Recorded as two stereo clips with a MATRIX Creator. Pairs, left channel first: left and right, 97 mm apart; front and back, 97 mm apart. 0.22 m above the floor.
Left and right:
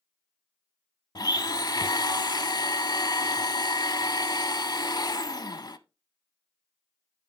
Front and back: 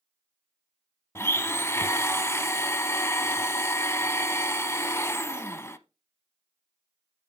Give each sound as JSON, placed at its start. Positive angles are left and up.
{"t": 1.1, "sound": "a blender", "azimuth_deg": 55, "distance_m": 0.7}